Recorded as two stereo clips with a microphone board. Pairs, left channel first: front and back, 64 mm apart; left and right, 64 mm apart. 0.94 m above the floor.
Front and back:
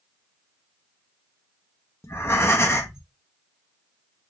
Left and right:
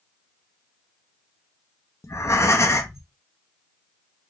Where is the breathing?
50° left, 0.6 m.